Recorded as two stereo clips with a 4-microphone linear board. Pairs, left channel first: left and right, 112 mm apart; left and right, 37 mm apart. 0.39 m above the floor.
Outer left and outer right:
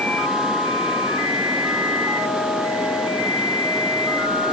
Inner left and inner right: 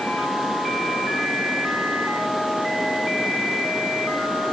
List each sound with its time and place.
Only background noise.